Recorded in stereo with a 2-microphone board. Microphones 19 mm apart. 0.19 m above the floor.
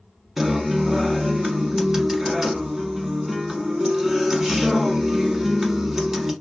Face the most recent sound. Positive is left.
turn(degrees=-25)  # may be behind; listen again after turning